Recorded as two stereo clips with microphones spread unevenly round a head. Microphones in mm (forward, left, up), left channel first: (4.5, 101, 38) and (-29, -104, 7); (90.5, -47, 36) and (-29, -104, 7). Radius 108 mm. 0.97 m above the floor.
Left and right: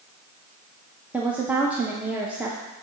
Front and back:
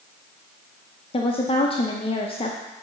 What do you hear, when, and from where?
1.1 s a woman speaking: 25° right, 0.8 m